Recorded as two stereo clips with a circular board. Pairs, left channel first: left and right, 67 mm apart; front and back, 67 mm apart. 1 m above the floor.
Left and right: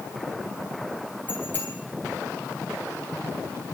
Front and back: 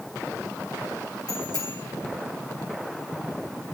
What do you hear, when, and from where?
1.3 s a bicycle bell: 25° left, 8.5 m